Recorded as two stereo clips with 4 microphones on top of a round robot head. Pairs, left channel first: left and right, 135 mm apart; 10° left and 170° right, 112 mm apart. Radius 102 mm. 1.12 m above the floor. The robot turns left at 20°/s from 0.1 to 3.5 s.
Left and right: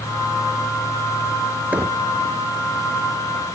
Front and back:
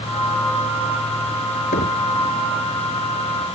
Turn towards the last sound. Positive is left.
turn(degrees=-45)